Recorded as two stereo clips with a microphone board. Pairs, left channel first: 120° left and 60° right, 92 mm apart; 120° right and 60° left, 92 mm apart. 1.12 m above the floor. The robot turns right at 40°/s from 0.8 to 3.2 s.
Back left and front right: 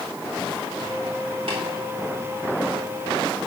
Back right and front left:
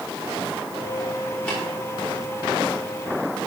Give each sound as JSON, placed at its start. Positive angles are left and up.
{"t": 1.5, "sound": "tapping", "azimuth_deg": -45, "distance_m": 3.0}